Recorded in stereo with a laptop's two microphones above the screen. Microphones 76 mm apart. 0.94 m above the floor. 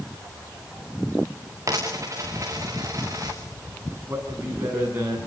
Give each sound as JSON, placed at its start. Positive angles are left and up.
{"t": 1.7, "sound": "a dropped coin", "side_deg": -45, "distance_m": 4.0}
{"t": 4.1, "sound": "a man speaking", "side_deg": -30, "distance_m": 9.5}